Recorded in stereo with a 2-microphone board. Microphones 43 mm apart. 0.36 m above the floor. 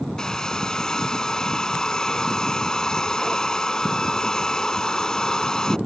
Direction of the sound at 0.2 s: 15° left (ahead or behind).